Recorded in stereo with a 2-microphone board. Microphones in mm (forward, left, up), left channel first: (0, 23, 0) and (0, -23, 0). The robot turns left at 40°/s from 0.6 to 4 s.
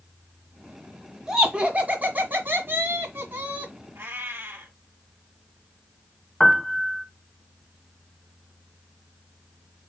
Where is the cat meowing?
70° right (ahead or behind), 2.5 m; by 4.8 s 65° right (ahead or behind), 2.5 m.